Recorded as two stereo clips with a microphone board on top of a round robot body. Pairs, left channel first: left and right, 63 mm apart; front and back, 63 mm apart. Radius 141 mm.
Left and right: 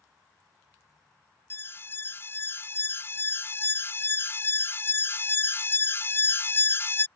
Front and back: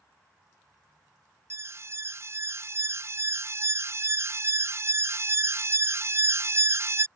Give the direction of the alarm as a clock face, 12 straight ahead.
7 o'clock.